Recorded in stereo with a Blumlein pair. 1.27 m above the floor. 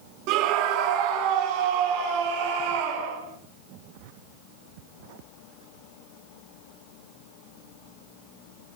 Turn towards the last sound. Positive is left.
turn(degrees=-50)